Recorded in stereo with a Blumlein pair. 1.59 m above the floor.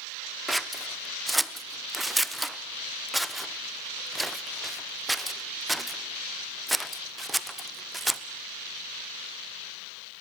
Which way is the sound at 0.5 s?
5° right.